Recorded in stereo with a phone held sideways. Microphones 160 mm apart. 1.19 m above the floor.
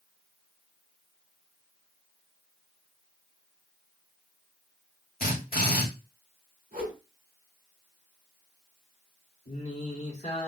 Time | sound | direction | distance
5.2 | a drill | 80° left | 1.9 m
6.7 | a whoosh | 65° right (ahead or behind) | 2.0 m
9.5 | singing | 45° left (ahead or behind) | 1.4 m